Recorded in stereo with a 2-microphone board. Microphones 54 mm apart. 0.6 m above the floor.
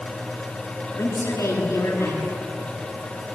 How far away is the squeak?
I don't hear a squeak.